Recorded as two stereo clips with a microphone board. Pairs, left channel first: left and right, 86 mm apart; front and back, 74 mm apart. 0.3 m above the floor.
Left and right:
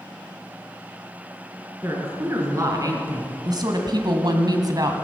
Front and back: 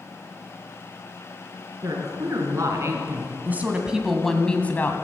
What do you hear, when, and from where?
1.8 s a woman speaking: 145° right, 4 m; by 5.0 s 55° right, 2 m